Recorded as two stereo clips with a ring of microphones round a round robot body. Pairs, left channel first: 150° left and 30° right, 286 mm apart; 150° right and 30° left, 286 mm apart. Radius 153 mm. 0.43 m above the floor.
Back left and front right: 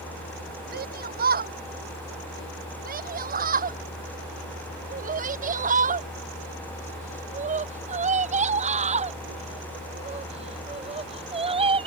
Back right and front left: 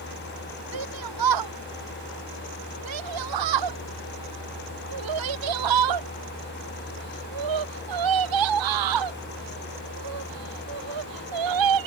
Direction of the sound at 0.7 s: 30° left.